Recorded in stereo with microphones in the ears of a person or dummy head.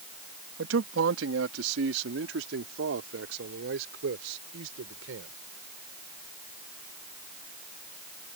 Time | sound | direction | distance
0.6 | a man speaking | 85° right | ?